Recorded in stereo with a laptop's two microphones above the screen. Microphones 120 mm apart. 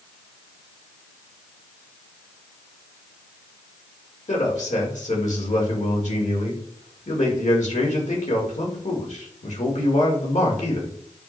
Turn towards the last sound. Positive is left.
turn(degrees=75)  # may be behind; listen again after turning